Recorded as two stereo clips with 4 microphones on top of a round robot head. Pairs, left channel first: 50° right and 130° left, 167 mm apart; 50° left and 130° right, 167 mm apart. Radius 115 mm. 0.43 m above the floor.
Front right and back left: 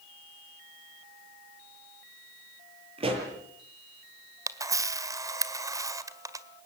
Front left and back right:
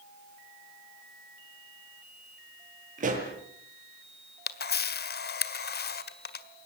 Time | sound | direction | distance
3.0 | a pop | 175° right | 8 m
4.5 | a camera shutter | 60° left | 1.8 m